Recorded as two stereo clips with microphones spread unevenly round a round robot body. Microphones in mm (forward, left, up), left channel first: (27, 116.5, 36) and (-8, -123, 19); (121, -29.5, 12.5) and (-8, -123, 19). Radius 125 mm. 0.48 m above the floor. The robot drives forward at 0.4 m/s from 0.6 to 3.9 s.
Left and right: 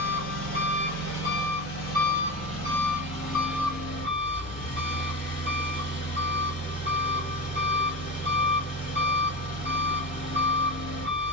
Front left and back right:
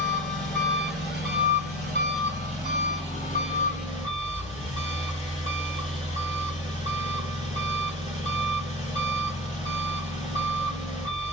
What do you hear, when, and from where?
0.0 s an engine running: 125° left, 2 m; by 11.3 s 145° left, 3 m